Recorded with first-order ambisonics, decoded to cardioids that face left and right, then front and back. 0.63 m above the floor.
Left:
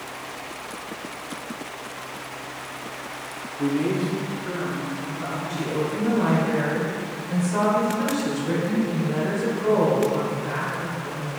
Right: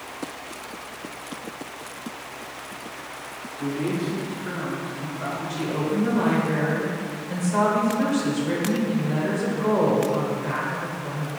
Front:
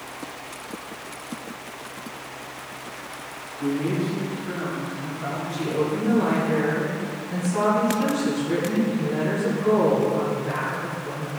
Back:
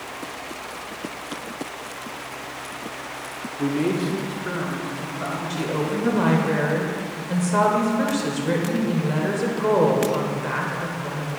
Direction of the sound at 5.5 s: 175° right.